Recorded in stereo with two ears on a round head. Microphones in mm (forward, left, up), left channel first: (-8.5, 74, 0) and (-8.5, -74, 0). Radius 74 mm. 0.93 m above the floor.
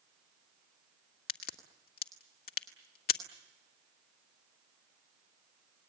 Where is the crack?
60° left (ahead or behind), 1.6 m.